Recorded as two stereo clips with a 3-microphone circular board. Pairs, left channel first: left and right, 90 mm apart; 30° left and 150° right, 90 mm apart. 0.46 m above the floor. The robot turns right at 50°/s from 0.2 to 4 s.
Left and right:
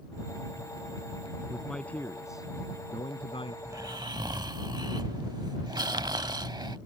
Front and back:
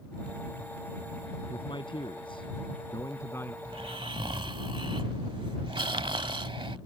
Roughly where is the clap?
No clap in this recording.